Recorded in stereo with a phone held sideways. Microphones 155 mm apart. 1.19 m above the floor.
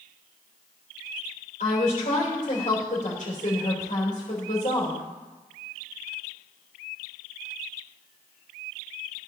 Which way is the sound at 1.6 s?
50° left (ahead or behind).